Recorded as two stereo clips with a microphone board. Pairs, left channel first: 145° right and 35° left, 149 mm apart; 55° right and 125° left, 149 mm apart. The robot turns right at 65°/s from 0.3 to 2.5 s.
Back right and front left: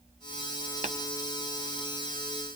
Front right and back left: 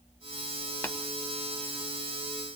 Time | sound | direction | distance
0.8 | tapping | 20° left | 0.8 m